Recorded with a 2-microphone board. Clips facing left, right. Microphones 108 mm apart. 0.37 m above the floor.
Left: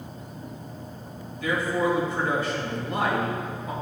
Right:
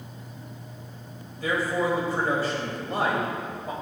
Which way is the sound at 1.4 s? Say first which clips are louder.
Left 1 dB; 35° right (ahead or behind).